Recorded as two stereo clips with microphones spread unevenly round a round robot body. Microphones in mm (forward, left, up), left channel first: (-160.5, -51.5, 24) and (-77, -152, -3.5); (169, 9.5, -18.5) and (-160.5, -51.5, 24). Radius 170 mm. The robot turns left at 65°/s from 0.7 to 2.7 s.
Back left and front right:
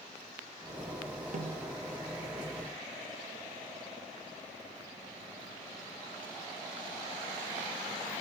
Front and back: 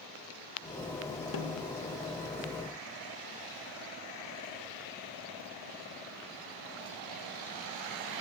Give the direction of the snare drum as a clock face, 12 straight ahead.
1 o'clock.